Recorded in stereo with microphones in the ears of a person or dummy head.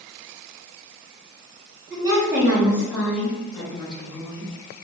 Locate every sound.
1.9 s a woman speaking: 30° right (ahead or behind), 1.3 m; by 4.5 s 35° left (ahead or behind), 1.7 m